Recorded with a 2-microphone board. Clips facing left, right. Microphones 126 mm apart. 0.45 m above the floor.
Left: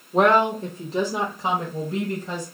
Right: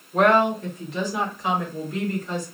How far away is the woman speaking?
About 1.0 m.